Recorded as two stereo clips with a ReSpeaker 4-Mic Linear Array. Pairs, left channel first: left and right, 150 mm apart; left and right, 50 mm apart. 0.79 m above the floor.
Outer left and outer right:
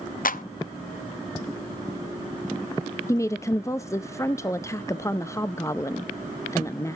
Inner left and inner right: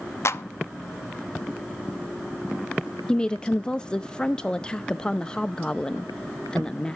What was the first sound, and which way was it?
A clap, 65° left (ahead or behind).